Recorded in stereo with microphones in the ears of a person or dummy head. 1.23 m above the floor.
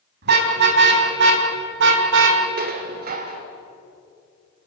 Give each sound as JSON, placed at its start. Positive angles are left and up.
{"t": 0.2, "sound": "a car horn", "side_deg": -55, "distance_m": 4.0}
{"t": 2.6, "sound": "dishes clattering", "side_deg": -45, "distance_m": 2.5}